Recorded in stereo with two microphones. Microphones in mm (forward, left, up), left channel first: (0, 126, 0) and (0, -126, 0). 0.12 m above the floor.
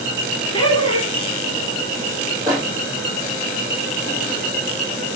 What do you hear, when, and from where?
0.5 s laughter: 25° left (ahead or behind), 1.3 m
2.5 s a microwave: 15° right (ahead or behind), 2.5 m